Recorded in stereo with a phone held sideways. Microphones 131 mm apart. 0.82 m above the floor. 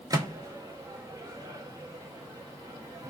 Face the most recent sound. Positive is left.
turn(degrees=-30)  # may be behind; listen again after turning